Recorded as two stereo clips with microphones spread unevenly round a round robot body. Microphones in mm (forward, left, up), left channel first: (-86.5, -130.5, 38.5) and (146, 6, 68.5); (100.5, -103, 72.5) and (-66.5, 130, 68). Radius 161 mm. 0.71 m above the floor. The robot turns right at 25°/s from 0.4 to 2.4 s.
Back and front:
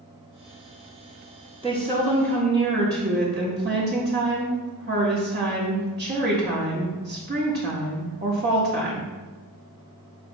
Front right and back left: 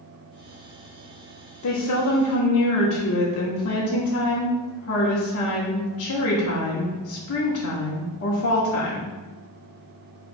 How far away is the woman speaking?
About 1.5 m.